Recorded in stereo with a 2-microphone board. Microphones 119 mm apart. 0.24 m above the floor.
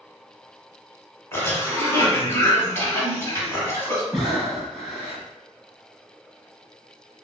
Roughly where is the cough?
Left.